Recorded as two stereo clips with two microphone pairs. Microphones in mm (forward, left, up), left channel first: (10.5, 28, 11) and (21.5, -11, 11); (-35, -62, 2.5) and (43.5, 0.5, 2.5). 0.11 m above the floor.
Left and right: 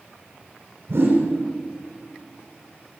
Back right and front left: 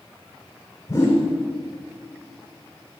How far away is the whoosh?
About 6.5 m.